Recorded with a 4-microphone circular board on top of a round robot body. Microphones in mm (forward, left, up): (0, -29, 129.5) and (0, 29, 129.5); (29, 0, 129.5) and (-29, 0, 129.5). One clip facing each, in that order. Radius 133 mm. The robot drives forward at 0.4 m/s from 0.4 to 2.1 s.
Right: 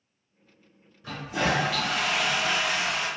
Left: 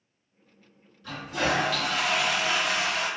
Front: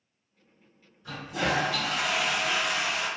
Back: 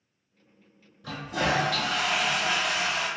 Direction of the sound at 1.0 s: 160° right.